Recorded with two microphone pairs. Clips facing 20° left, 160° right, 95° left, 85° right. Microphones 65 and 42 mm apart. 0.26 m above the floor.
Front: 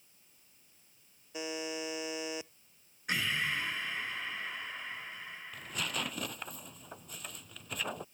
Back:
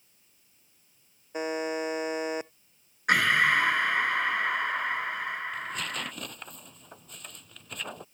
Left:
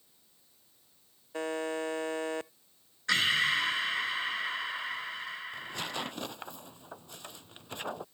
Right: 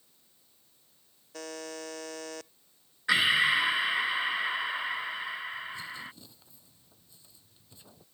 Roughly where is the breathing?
Behind.